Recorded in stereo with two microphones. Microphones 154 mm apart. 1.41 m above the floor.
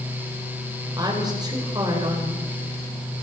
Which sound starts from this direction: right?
A woman speaking, at 1.0 s.